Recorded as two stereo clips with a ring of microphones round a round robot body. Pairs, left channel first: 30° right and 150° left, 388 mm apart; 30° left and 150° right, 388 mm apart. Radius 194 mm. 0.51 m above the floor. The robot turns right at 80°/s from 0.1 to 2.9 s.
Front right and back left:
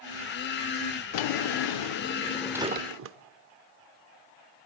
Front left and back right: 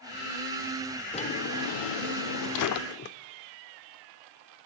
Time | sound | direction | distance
1.1 | a drawer | 50° right | 0.6 m